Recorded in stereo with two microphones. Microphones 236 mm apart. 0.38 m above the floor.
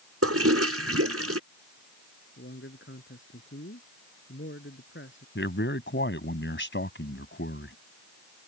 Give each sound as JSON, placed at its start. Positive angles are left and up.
{"t": 0.2, "sound": "a toilet flushing", "side_deg": -80}
{"t": 2.4, "sound": "a man speaking", "side_deg": 55}
{"t": 5.3, "sound": "a man speaking", "side_deg": 50}